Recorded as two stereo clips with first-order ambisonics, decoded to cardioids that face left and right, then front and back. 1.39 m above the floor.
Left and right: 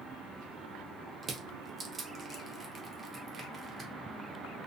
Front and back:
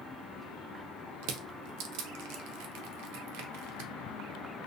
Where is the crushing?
165° right, 0.5 m.